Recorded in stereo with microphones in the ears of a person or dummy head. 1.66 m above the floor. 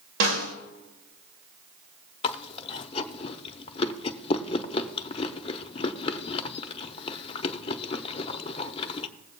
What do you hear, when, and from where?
0.2 s a snare drum: 70° right (ahead or behind), 1.3 m
2.2 s chewing: 35° left (ahead or behind), 0.6 m